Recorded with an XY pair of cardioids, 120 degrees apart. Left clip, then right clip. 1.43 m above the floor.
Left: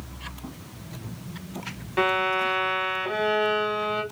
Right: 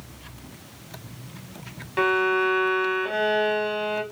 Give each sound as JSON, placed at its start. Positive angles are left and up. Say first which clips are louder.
{"t": 2.0, "sound": "a violin", "louder": "right 2 dB", "azimuth_deg": 0, "distance_m": 2.0}